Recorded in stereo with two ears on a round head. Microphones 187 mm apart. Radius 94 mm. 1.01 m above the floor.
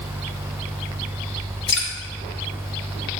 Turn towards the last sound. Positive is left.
turn(degrees=50)  # may be behind; listen again after turning